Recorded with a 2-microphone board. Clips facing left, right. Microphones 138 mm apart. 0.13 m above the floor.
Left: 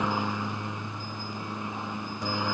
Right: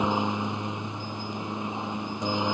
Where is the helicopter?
20° right (ahead or behind).